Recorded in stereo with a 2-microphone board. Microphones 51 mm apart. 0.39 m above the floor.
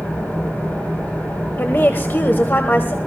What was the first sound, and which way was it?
An engine running, 25° left (ahead or behind).